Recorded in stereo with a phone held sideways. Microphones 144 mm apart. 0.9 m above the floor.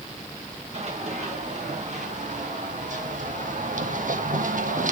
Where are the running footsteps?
50° right (ahead or behind), 4.5 m; by 4.9 s 65° right (ahead or behind), 2.0 m.